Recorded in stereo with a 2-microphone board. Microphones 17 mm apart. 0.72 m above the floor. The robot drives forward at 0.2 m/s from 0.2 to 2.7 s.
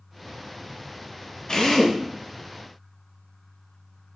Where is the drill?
45° left (ahead or behind), 0.8 m; by 2.0 s 40° left (ahead or behind), 0.9 m.